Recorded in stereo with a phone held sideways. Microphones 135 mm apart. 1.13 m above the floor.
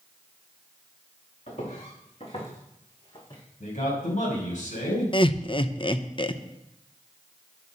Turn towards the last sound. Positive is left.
turn(degrees=40)  # may be behind; listen again after turning